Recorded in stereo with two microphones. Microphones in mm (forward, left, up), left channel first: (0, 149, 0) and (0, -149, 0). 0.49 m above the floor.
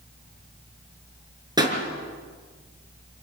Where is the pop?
15° right (ahead or behind), 5 m.